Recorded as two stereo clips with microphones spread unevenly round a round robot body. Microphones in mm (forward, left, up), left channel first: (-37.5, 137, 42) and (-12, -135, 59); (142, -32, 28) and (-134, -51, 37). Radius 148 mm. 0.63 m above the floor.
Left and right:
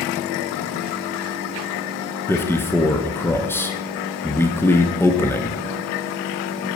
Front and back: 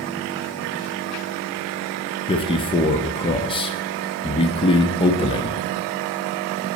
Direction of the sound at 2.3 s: 35° left.